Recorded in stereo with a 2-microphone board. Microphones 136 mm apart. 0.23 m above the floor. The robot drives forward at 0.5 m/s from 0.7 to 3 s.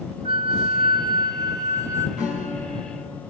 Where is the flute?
45° right (ahead or behind), 0.6 m; by 2.1 s 20° right (ahead or behind), 1.2 m.